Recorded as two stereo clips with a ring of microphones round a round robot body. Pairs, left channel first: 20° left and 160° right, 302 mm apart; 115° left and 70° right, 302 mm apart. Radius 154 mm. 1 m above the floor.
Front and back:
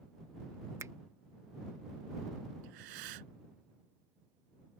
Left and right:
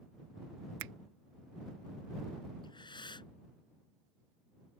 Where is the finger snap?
75° right.